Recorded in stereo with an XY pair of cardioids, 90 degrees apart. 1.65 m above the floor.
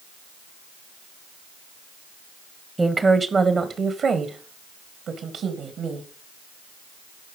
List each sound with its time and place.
2.8 s a woman speaking: 20° right, 1.1 m; by 6.1 s 75° right, 2.5 m